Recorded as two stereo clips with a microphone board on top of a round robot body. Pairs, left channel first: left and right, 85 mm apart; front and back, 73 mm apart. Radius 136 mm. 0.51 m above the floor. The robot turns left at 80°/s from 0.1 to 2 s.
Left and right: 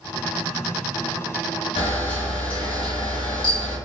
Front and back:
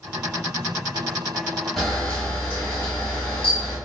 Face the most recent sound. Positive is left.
turn(degrees=70)